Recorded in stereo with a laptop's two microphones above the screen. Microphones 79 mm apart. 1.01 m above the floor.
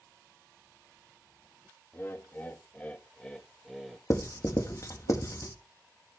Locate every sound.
1.9 s laughter: 30° left (ahead or behind), 2 m; by 4.0 s centre (ahead or behind), 1.4 m
4.1 s writing: 45° left (ahead or behind), 1.5 m